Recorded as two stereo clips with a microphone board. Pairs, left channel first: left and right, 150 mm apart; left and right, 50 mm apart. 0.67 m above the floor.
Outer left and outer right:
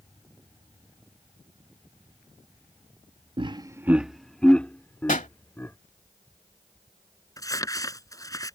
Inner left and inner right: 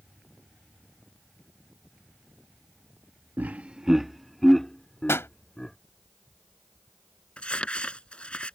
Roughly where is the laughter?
Right.